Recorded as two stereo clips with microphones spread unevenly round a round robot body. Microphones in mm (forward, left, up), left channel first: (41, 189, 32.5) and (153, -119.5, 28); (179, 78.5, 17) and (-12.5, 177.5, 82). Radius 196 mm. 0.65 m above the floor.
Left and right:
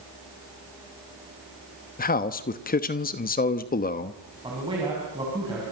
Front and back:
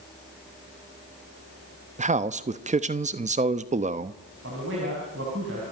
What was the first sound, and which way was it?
A man speaking, 95° left.